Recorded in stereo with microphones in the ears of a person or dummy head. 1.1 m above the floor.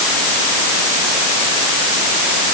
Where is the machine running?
I don't hear a machine running.